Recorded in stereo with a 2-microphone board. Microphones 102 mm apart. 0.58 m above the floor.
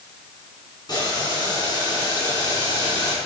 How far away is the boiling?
About 5 m.